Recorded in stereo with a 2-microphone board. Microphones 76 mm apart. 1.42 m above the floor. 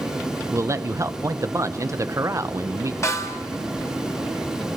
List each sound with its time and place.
0.5 s a man speaking: 40° right (ahead or behind), 0.8 m
3.0 s a snare drum: 40° left (ahead or behind), 1.7 m